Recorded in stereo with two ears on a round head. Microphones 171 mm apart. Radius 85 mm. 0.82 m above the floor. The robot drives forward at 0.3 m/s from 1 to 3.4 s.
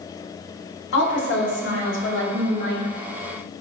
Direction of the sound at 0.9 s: 70° left (ahead or behind).